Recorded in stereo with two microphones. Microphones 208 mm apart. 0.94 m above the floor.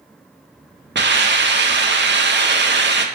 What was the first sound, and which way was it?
A hiss, 60° right (ahead or behind).